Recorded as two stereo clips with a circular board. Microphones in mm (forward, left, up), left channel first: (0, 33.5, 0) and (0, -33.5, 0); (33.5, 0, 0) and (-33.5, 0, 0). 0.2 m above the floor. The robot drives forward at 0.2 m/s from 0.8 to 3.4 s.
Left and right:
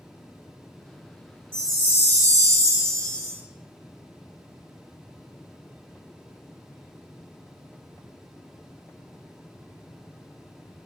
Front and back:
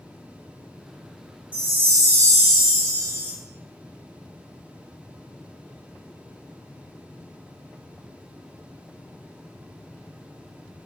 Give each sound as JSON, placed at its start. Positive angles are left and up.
{"t": 1.5, "sound": "a chime", "azimuth_deg": -130, "distance_m": 1.4}